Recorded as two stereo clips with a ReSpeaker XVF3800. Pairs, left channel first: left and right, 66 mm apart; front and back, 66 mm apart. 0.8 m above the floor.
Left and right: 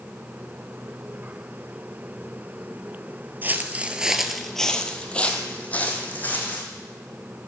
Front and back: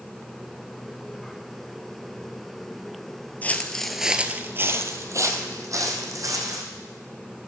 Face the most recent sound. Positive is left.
turn(degrees=155)